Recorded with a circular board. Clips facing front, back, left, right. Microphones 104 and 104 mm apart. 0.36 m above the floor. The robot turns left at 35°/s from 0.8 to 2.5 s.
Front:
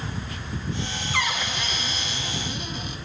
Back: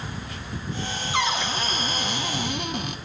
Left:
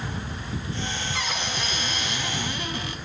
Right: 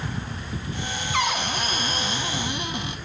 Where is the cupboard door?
110° right, 1.0 m; by 3.0 s 160° right, 1.0 m.